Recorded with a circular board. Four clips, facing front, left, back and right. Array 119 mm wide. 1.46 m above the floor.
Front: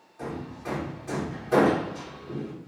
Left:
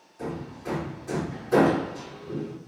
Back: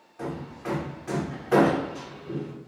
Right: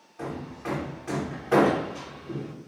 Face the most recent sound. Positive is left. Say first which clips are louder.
# even, back 1 dB
turn(degrees=-120)